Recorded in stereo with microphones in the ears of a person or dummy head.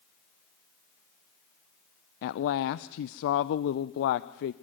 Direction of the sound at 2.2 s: 65° left (ahead or behind).